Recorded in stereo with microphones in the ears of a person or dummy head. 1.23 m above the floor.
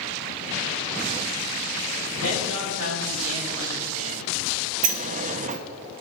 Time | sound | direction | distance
2.2 | a man speaking | 75° right (ahead or behind) | 3.5 m
4.8 | a sliding door | 35° right (ahead or behind) | 0.7 m